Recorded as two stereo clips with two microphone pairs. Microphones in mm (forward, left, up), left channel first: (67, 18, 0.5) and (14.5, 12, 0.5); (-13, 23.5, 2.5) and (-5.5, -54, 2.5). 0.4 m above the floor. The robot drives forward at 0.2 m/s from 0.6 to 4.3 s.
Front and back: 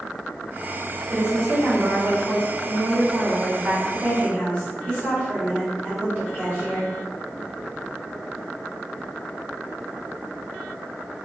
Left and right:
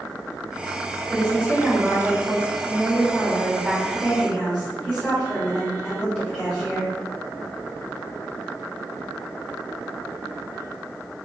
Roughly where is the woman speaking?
Behind.